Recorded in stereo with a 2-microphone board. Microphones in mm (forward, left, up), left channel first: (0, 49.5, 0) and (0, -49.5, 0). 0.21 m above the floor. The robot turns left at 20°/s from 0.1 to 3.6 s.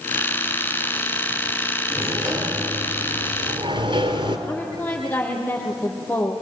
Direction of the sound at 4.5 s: 20° left (ahead or behind).